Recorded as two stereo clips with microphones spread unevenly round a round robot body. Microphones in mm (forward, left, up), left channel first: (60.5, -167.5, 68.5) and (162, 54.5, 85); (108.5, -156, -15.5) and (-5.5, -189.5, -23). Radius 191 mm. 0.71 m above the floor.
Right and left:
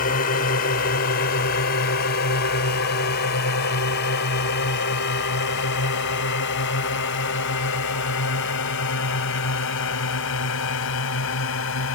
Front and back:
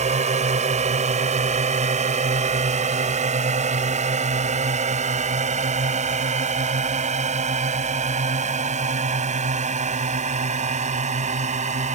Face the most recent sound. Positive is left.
turn(degrees=-155)